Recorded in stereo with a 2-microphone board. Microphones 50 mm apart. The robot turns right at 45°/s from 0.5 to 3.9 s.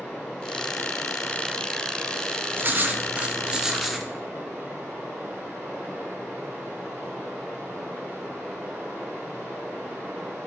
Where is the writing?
65° right, 0.7 m; by 4.1 s 5° right, 0.7 m.